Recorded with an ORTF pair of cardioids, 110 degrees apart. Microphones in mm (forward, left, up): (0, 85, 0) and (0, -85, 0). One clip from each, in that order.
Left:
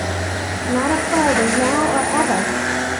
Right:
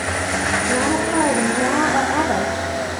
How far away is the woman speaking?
About 1.3 m.